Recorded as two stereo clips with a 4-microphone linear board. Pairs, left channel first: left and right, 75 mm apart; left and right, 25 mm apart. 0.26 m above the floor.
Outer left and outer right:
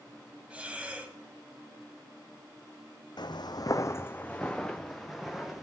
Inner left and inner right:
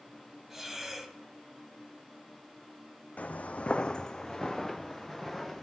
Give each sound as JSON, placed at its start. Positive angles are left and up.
{"t": 0.5, "sound": "breathing", "side_deg": -15, "distance_m": 1.4}
{"t": 3.2, "sound": "footsteps", "side_deg": 70, "distance_m": 0.7}